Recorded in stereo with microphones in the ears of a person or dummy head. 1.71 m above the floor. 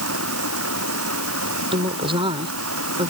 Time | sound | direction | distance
0.0 | running water | 90° right | ?
1.7 | a woman speaking | 25° right (ahead or behind) | ?